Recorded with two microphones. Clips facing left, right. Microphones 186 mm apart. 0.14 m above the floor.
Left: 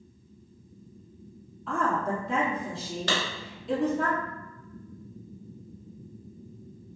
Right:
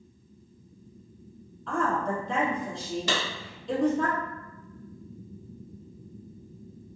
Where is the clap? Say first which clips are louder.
Left 1 dB; 10° right (ahead or behind), 1.5 m.